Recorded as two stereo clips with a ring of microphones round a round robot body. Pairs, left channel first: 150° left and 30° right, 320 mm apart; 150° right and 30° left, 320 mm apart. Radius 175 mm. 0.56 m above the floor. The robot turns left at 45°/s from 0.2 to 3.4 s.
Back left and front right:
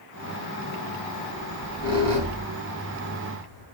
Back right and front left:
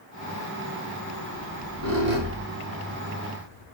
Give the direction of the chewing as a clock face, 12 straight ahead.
No chewing in this recording.